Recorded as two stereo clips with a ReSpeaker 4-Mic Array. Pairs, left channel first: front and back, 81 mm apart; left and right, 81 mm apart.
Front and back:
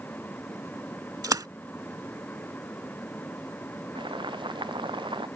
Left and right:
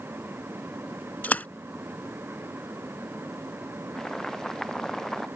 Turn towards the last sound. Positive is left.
turn(degrees=175)